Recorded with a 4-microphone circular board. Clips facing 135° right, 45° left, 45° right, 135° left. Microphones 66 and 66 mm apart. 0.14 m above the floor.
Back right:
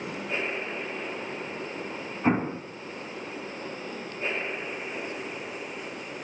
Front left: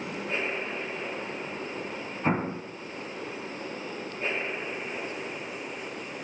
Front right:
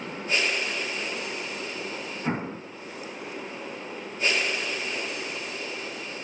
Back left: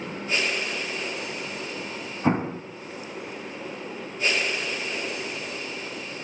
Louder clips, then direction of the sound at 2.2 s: Back right 3 dB, back left 7 dB; 140° left.